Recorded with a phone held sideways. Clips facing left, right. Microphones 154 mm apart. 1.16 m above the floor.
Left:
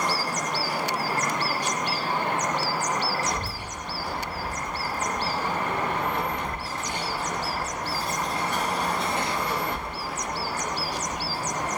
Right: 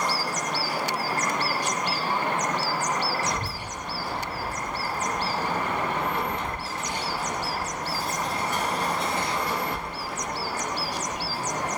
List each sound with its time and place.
3.2 s a child speaking: 20° right (ahead or behind), 1.4 m; by 11.7 s centre (ahead or behind), 3 m